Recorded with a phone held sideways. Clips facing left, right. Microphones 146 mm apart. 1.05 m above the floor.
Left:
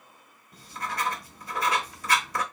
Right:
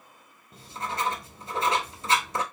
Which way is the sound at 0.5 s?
25° right (ahead or behind).